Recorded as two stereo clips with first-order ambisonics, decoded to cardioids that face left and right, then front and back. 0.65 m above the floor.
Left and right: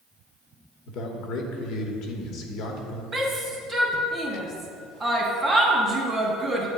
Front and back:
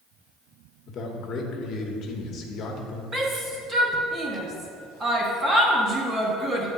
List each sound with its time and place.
0.9 s a man speaking: 55° left, 0.9 m
3.1 s a shout: 140° right, 0.8 m